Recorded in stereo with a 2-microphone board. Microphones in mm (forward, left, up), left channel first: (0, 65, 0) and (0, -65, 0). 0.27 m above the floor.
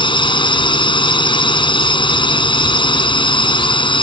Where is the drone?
40° left (ahead or behind).